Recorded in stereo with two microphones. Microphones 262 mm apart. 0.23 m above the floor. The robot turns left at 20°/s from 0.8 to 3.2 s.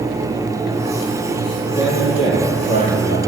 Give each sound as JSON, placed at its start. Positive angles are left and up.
{"t": 1.6, "sound": "a man speaking", "azimuth_deg": 165, "distance_m": 7.5}